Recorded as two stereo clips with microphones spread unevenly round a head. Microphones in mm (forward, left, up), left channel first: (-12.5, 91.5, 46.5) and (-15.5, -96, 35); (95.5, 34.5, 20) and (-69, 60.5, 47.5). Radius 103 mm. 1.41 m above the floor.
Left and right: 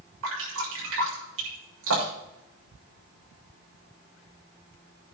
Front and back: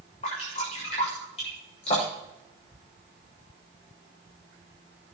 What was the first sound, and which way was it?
Dripping, 75° right.